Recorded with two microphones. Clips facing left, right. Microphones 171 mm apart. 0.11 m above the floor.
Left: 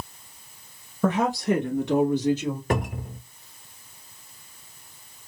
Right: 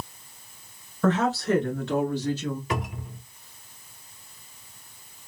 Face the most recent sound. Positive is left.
turn(degrees=50)  # may be behind; listen again after turning